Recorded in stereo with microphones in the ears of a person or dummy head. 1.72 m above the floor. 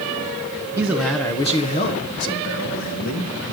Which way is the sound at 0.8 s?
10° right (ahead or behind).